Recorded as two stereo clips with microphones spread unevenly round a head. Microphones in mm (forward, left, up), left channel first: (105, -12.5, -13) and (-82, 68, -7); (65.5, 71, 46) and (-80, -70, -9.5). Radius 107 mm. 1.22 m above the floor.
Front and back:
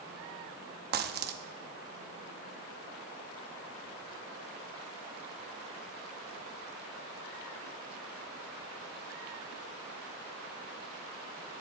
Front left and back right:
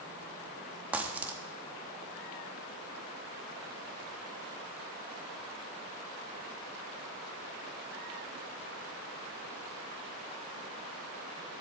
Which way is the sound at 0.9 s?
130° left.